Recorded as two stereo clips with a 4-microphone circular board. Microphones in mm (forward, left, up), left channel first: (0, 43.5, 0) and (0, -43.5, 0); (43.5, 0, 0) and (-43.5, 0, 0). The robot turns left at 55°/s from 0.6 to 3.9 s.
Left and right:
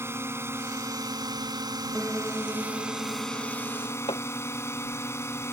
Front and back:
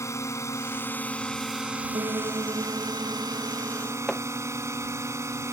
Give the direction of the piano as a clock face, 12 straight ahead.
6 o'clock.